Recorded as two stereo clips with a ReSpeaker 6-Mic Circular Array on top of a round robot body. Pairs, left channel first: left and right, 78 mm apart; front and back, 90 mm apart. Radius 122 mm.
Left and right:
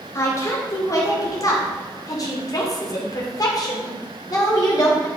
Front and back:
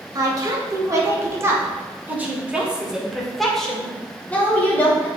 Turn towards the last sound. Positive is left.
turn(degrees=60)